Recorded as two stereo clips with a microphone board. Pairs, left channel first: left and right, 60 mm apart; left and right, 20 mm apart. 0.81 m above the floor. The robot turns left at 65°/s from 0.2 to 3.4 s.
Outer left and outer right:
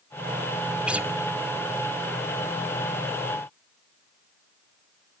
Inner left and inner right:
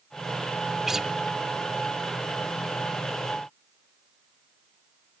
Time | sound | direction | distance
0.9 | a guitar | 15° right (ahead or behind) | 0.8 m